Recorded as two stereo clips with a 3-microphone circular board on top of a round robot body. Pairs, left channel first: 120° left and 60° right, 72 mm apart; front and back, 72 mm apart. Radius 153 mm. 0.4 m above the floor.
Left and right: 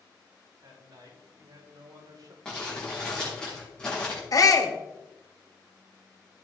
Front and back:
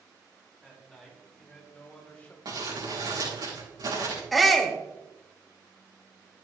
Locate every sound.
0.6 s a man speaking: 90° right, 5 m; by 2.4 s 60° right, 3 m
2.5 s crumpling: 165° right, 6 m
4.3 s a shout: 90° left, 1.7 m